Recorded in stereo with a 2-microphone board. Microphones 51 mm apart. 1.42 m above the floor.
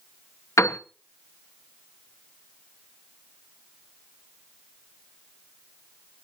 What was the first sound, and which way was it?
A piano, 80° left.